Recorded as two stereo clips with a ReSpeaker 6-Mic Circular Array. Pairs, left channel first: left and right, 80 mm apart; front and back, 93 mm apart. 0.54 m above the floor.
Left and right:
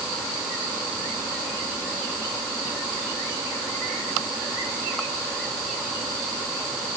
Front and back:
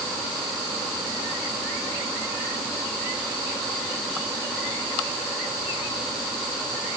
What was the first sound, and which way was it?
Only background noise.